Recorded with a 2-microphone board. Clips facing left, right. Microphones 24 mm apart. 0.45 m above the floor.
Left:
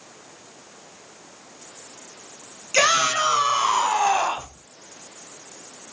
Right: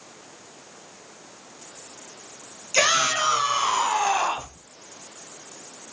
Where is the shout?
25° left (ahead or behind), 5 m; by 4.5 s 20° left (ahead or behind), 2.5 m.